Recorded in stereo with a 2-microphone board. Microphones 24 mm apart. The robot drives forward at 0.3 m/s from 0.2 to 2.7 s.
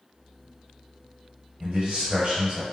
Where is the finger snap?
No finger snap in this recording.